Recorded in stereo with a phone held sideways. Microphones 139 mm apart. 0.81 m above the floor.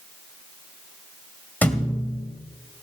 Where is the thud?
15° left (ahead or behind), 1.7 m.